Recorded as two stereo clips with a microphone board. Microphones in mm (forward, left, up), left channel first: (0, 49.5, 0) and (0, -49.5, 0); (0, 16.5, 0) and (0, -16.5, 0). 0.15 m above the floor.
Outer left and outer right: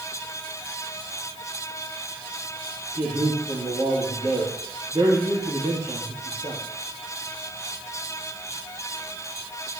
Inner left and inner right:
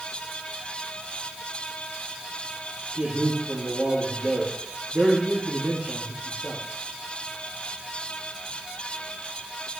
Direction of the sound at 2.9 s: 25° right (ahead or behind).